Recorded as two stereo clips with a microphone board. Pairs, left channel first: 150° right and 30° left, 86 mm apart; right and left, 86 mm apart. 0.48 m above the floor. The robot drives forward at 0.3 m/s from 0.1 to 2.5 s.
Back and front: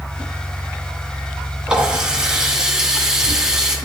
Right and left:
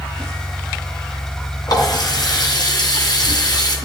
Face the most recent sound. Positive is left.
turn(degrees=-55)